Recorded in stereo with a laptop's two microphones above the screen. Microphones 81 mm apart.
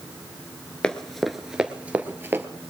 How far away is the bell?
No bell in this recording.